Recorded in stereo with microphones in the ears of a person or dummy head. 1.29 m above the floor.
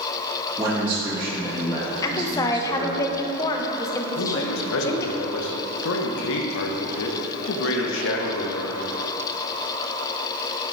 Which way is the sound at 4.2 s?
80° left.